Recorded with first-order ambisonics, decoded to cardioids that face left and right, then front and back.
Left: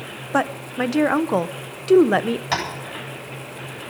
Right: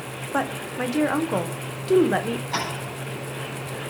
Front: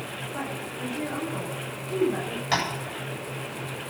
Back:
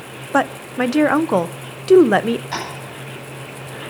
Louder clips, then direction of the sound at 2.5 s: Left 4 dB, front 1 dB; 60° left.